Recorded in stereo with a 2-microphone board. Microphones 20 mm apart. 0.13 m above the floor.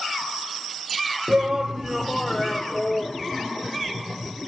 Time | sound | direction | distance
1.3 | a shout | 45° right (ahead or behind) | ?